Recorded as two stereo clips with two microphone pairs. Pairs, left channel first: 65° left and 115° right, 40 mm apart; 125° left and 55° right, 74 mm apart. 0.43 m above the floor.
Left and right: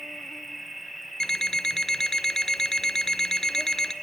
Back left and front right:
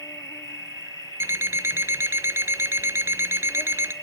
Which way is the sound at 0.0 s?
160° left.